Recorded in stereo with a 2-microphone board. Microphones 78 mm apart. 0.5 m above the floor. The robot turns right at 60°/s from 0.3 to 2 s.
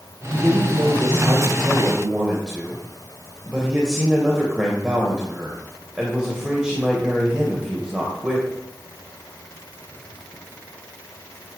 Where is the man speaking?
115° right, 2.5 m; by 8.5 s 10° right, 2.5 m.